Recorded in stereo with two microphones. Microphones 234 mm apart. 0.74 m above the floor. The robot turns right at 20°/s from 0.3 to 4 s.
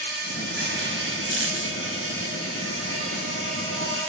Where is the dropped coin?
55° right (ahead or behind), 1.6 m; by 1.8 s 70° right (ahead or behind), 1.6 m.